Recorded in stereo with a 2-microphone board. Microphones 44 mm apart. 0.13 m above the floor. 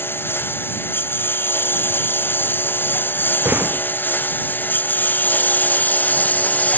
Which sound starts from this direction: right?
A door slam, at 3.5 s.